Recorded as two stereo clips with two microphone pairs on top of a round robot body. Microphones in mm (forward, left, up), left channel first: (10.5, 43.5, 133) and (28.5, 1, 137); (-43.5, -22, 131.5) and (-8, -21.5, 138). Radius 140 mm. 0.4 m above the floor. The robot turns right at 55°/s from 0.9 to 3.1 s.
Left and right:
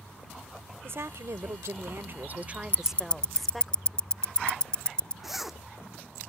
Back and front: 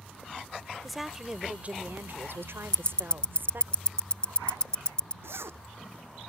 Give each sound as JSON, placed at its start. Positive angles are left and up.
{"t": 0.8, "sound": "a woman speaking", "azimuth_deg": -95}
{"t": 2.7, "sound": "ticking", "azimuth_deg": 140}
{"t": 5.2, "sound": "a zipper", "azimuth_deg": 20}